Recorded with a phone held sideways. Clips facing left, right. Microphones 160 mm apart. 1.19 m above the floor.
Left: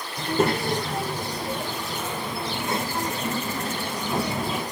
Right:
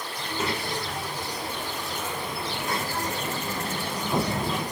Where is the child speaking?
55° left (ahead or behind), 2 m; by 4.6 s 5° left (ahead or behind), 3 m.